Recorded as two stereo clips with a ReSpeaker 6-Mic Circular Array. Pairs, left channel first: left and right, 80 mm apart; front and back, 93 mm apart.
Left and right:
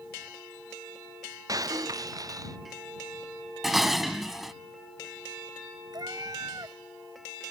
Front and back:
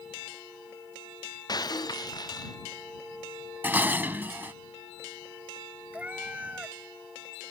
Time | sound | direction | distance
1.5 | breaking glass | 45° right | ?
3.6 | dishes clattering | 175° right | ?
5.9 | a cat meowing | 105° right | ?